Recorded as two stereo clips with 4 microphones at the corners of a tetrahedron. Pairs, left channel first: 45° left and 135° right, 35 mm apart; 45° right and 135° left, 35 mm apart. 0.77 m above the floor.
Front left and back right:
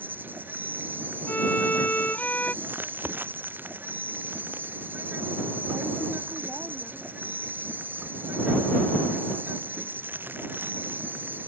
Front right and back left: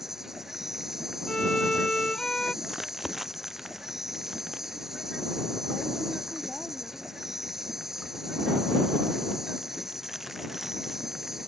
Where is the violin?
20° left.